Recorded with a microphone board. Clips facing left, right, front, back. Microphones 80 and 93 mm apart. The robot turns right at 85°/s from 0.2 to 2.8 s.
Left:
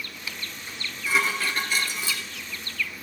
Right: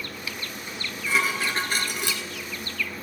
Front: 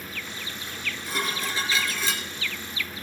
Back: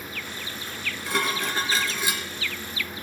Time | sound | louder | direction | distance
0.7 | dishes clattering | even, back 5 dB | 135° left | 2.5 m